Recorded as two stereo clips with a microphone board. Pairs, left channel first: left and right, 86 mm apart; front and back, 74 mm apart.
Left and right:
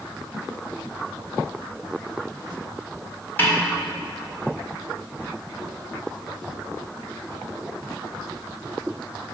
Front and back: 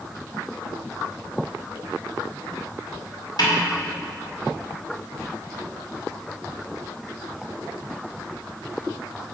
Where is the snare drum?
25° left, 2 m.